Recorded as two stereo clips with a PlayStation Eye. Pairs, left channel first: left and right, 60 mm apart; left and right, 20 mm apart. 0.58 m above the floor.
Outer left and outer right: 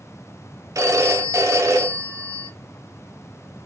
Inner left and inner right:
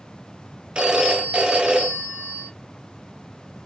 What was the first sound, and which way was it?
A phone ringing, 65° right (ahead or behind).